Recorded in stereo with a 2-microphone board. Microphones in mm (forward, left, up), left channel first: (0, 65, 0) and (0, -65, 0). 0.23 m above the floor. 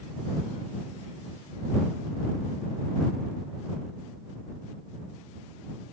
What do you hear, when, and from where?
Only background noise.